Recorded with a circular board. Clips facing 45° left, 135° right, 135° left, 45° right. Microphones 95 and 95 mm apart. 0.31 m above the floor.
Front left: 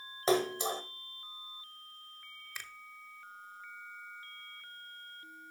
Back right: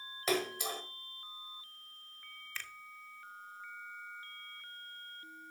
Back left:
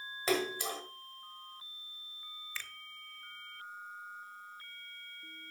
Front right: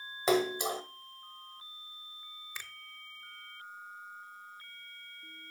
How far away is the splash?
About 1.2 m.